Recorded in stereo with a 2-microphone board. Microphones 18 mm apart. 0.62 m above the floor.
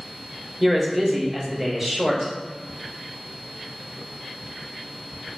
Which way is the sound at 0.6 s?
20° right (ahead or behind).